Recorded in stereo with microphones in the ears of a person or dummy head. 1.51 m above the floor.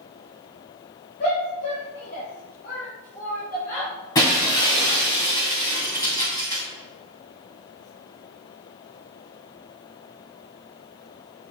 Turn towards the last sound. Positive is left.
turn(degrees=25)  # may be behind; listen again after turning